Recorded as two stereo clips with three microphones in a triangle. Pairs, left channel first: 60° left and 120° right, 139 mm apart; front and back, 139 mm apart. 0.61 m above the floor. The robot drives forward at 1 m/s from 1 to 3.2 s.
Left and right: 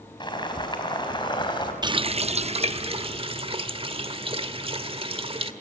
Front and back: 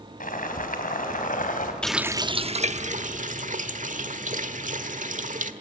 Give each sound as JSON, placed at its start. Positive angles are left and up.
{"t": 0.2, "sound": "boiling", "azimuth_deg": 5, "distance_m": 4.0}
{"t": 1.8, "sound": "a running tap", "azimuth_deg": -80, "distance_m": 0.5}